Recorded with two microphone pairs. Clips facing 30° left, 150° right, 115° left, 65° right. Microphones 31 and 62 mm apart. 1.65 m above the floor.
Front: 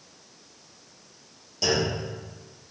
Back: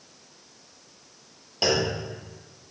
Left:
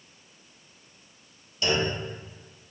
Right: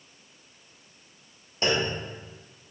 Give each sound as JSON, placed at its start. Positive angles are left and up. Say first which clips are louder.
{"t": 1.6, "sound": "a clunk", "louder": "back 1 dB, even", "azimuth_deg": -115, "distance_m": 1.6}